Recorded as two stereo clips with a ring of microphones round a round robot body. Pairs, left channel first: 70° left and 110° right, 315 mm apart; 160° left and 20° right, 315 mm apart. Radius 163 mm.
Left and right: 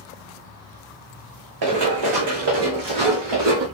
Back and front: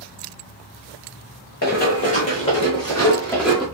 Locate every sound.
1.6 s running footsteps: 140° right, 2 m; by 3.7 s 115° right, 2.5 m